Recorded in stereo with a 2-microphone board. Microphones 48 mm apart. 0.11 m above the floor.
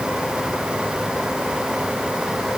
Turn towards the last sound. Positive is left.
No sound to turn to.